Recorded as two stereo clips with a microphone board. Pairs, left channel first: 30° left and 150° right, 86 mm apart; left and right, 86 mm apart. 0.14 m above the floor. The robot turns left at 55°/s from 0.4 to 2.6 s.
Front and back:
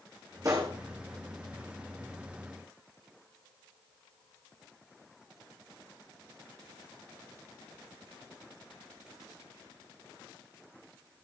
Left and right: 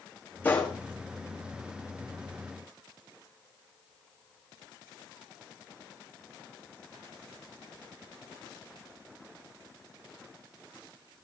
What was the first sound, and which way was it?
A gunshot, 160° left.